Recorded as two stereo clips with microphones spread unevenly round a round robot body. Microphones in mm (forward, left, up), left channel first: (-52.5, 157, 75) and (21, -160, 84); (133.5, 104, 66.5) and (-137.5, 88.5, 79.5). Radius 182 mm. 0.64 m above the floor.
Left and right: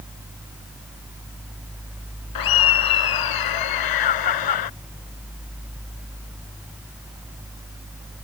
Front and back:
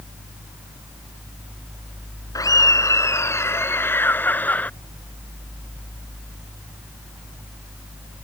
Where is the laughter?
80° left; by 4.7 s 90° left.